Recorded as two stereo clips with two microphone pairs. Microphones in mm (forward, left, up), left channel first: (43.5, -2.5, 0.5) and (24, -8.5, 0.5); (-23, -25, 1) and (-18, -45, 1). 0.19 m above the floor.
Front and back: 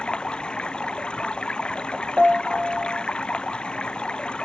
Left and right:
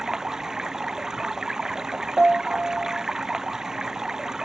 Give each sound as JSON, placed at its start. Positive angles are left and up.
{"t": 0.0, "sound": "running water", "azimuth_deg": -15}
{"t": 2.2, "sound": "a piano", "azimuth_deg": -110}